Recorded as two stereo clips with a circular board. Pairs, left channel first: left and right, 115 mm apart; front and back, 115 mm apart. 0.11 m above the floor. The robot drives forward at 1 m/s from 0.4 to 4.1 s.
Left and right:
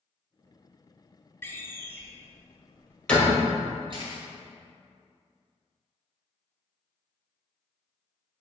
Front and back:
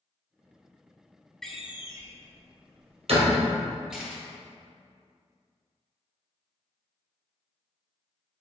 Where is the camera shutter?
100° right, 2 m; by 4.2 s 105° right, 2 m.